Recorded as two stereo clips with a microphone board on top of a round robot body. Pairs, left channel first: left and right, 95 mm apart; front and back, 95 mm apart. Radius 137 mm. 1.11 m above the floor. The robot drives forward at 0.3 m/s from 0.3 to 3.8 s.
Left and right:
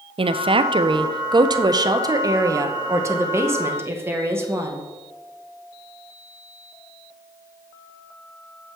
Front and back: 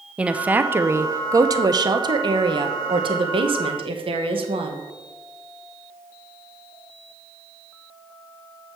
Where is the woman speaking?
100° right, 0.7 m; by 4.8 s 155° right, 1.3 m.